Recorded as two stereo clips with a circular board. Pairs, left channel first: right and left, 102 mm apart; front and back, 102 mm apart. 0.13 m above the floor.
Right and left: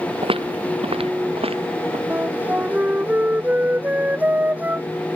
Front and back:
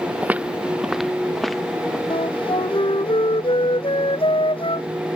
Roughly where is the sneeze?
I don't hear a sneeze.